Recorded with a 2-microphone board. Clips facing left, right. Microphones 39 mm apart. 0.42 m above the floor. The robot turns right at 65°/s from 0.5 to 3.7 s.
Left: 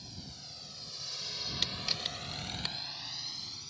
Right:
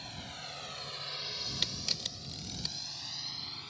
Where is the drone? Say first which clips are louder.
Right 6 dB; 50° right (ahead or behind); by 3.7 s 35° right (ahead or behind).